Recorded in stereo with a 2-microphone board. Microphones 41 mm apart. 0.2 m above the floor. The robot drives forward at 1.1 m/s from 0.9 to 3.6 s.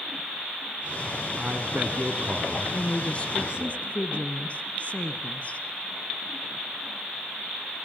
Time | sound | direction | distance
1.4 | a man speaking | 45° right (ahead or behind) | 2.5 m
2.7 | a woman speaking | 30° left (ahead or behind) | 2.5 m